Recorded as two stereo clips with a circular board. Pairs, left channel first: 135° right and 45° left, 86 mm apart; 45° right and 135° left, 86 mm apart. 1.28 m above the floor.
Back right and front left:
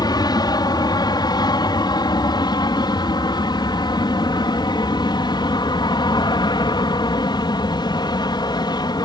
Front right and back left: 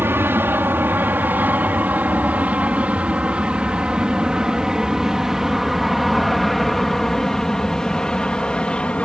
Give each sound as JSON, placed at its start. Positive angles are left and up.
{"t": 0.0, "sound": "an aircraft", "azimuth_deg": -165}